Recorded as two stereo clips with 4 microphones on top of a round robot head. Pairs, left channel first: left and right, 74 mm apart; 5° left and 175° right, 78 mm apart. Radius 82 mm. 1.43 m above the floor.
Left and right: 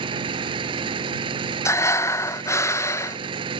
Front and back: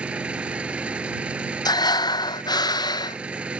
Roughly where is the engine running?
Right.